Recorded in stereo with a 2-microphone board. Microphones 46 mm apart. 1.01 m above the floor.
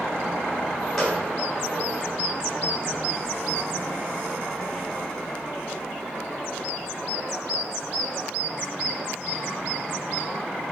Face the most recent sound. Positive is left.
turn(degrees=10)  # may be behind; listen again after turning